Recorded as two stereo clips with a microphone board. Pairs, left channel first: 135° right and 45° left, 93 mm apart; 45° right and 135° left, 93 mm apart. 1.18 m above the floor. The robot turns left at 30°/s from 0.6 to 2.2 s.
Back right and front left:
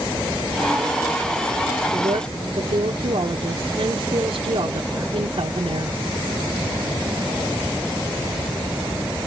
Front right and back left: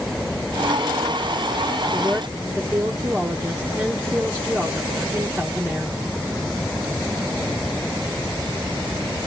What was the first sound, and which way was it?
A woman speaking, 70° left.